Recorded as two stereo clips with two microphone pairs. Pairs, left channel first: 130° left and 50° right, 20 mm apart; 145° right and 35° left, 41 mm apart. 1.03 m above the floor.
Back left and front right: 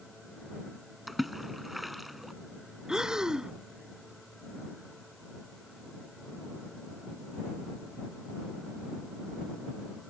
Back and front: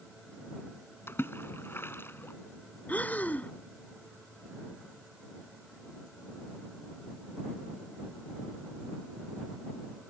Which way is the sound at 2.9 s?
105° right.